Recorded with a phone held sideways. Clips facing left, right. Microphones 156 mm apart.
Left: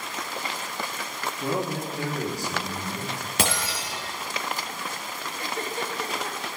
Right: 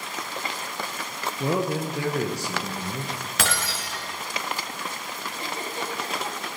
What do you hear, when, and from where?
1.4 s a man speaking: 80° right, 1.4 m; by 3.1 s 60° right (ahead or behind), 2 m
3.4 s breaking glass: 15° left (ahead or behind), 3 m
5.4 s a giggle: 25° right (ahead or behind), 2 m